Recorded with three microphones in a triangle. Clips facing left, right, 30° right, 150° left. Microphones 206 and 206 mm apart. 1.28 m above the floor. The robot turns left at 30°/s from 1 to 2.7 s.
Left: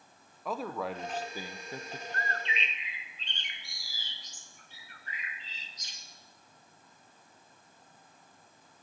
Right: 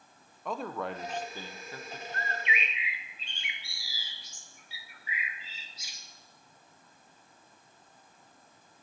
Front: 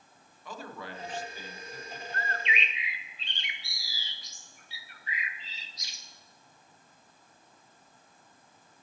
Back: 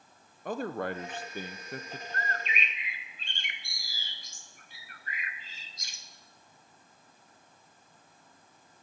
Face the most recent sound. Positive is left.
turn(degrees=-170)